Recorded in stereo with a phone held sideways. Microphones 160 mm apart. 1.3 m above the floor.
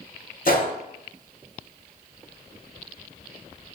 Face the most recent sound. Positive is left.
turn(degrees=60)  # may be behind; listen again after turning